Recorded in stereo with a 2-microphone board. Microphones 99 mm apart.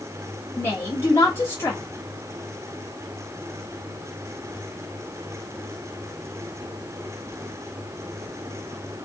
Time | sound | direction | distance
0.6 | a woman speaking | 25° left (ahead or behind) | 1.2 m